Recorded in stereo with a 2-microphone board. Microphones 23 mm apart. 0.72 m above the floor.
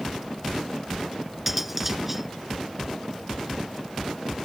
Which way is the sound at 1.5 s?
10° right (ahead or behind).